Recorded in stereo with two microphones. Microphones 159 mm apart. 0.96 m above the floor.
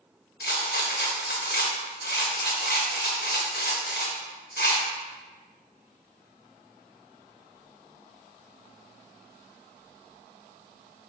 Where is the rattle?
75° left (ahead or behind), 0.7 m.